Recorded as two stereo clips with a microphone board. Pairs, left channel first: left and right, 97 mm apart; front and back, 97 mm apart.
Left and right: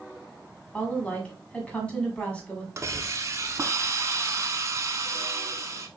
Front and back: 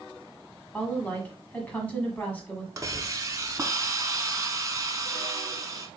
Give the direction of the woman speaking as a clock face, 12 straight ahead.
11 o'clock.